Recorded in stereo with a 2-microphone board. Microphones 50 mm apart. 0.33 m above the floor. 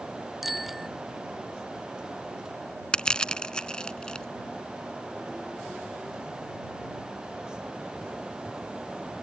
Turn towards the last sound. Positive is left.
turn(degrees=15)  # may be behind; listen again after turning